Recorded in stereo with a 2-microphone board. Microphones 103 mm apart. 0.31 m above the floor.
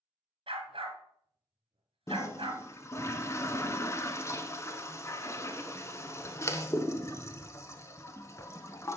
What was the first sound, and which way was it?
A dog barking, 65° right (ahead or behind).